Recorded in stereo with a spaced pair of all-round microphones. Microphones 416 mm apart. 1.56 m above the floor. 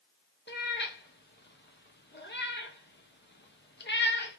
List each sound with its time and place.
0.5 s a cat meowing: 25° left (ahead or behind), 0.8 m